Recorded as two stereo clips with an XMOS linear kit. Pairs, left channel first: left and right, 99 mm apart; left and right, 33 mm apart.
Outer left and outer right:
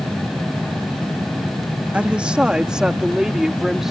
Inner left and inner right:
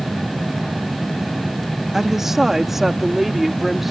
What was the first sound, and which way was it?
A woman speaking, 10° right (ahead or behind).